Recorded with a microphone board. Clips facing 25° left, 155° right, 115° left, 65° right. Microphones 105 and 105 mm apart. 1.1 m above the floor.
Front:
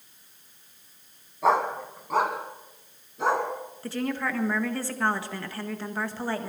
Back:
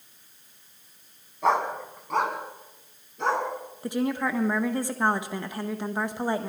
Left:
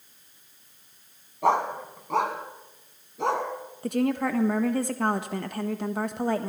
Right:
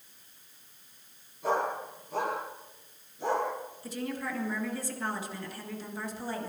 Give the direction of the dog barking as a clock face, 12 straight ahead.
8 o'clock.